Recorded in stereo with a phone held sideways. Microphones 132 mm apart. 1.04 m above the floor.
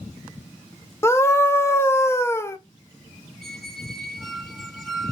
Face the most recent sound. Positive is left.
turn(degrees=0)  # may be behind; listen again after turning